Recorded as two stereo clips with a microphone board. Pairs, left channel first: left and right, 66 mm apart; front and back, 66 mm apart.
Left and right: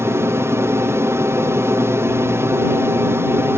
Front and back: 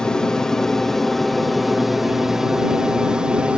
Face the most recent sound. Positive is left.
turn(degrees=-115)